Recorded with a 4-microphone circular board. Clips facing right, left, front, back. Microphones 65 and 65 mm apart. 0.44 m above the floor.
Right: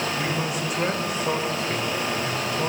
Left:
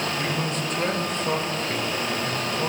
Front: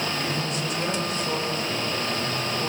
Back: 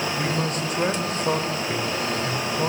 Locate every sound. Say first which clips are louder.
0.2 s a man speaking: even, back 3 dB; 170° right, 1.7 m